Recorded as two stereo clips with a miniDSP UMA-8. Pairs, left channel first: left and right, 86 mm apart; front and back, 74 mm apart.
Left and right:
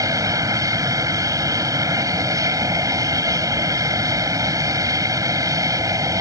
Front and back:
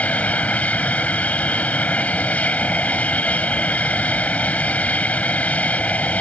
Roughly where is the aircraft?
Ahead right.